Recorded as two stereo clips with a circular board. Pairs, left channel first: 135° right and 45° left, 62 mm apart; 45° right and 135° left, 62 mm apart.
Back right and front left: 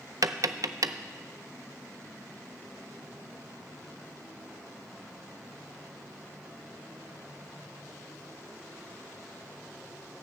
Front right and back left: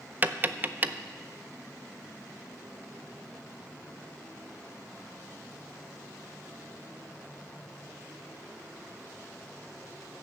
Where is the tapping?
75° left, 0.5 m.